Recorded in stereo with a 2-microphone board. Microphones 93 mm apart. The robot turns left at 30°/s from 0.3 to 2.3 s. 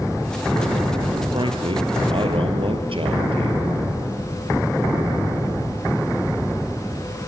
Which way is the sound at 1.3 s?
60° right (ahead or behind).